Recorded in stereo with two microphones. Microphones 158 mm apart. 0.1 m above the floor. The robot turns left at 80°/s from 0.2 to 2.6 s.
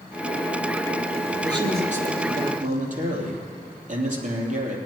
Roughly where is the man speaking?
Ahead right.